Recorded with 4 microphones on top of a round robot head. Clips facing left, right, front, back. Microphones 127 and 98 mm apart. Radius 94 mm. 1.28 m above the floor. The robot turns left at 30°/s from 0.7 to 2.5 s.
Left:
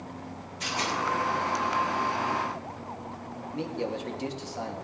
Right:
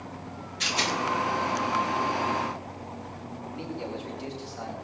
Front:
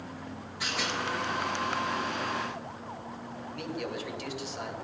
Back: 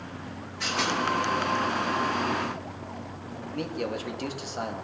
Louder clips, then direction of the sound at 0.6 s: Right 1 dB, back 5 dB; 80° right.